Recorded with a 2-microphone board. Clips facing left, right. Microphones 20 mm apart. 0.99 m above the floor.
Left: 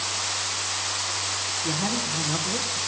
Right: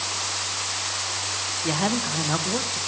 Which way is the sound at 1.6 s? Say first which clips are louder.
Right 5 dB; 40° right (ahead or behind).